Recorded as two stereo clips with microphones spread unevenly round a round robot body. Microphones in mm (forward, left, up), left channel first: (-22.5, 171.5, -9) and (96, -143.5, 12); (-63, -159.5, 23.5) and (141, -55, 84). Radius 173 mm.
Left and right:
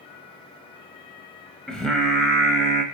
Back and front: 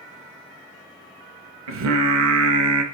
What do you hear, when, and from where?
1.7 s singing: 25° left, 0.6 m